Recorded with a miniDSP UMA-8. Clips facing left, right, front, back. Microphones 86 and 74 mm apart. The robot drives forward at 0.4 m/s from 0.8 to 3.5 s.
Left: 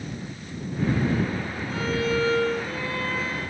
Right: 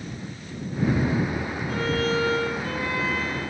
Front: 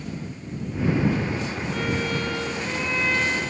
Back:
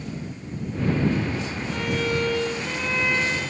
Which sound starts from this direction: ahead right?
A violin, at 1.7 s.